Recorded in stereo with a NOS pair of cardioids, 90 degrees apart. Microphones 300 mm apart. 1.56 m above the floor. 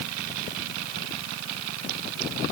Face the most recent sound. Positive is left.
No sound to turn to.